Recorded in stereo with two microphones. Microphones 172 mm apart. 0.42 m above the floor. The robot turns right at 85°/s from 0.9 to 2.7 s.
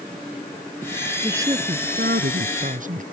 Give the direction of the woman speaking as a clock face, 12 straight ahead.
6 o'clock.